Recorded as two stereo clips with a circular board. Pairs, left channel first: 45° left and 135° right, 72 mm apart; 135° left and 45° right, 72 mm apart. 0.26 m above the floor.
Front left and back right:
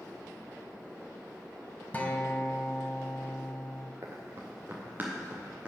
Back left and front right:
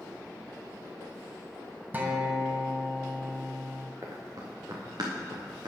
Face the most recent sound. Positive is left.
turn(degrees=-65)